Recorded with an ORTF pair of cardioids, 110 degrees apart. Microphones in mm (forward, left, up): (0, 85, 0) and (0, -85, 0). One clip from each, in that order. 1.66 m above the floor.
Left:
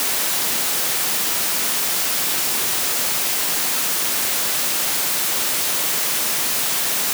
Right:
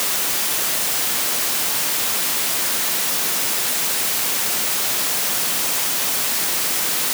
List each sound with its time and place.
Only background noise.